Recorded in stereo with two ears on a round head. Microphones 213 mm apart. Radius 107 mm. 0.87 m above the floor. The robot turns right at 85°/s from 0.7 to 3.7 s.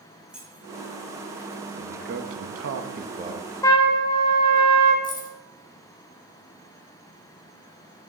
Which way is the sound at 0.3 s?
5° right (ahead or behind).